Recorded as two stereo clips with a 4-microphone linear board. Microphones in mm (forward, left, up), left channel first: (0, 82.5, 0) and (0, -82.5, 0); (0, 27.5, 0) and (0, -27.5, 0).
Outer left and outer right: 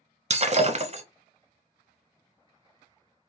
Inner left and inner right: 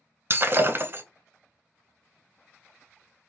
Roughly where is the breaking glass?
Right.